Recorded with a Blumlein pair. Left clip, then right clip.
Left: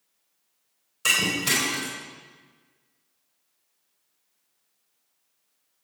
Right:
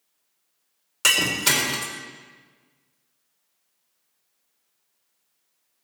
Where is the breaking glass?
50° right, 3.5 m.